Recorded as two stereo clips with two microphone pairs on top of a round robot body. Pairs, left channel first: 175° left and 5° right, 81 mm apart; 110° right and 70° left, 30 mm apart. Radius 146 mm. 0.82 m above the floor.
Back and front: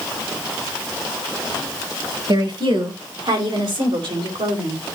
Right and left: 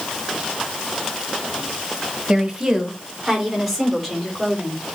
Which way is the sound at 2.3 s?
10° left.